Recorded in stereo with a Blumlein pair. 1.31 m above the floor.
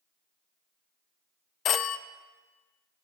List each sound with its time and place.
1.6 s a phone ringing: 25° left, 0.5 m